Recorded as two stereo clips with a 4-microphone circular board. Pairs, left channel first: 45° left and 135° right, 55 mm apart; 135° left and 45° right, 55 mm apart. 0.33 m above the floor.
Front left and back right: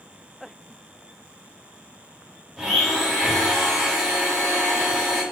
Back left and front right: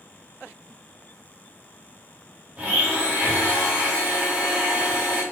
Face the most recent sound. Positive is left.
turn(degrees=-70)